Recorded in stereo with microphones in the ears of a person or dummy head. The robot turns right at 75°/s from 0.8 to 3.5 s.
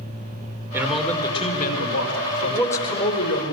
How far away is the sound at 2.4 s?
About 4 m.